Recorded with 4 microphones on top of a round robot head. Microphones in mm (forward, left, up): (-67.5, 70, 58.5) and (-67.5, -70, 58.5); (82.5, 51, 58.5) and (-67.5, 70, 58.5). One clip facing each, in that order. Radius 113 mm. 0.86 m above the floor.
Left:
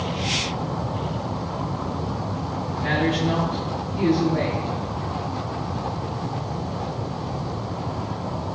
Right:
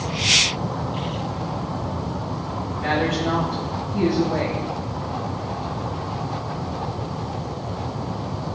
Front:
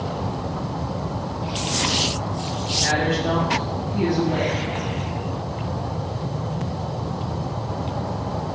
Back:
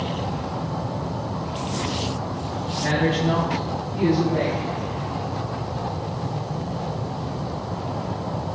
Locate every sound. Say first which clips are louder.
2.8 s a woman speaking: even, back 1 dB; 55° right, 6 m